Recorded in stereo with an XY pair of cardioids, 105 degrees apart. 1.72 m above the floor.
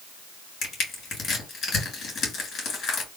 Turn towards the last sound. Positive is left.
turn(degrees=60)